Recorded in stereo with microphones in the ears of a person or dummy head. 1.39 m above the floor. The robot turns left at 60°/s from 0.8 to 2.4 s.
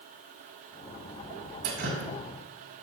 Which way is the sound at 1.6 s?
50° right (ahead or behind).